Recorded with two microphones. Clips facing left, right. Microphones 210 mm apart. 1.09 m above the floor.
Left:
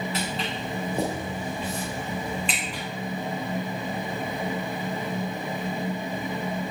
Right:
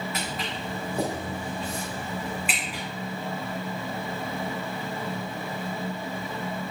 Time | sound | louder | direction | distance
0.1 | footsteps | left 3 dB | 30° left (ahead or behind) | 4 m